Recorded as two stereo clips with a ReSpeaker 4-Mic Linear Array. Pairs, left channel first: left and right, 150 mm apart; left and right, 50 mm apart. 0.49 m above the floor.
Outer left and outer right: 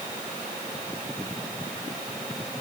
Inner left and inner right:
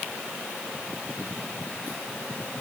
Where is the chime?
No chime in this recording.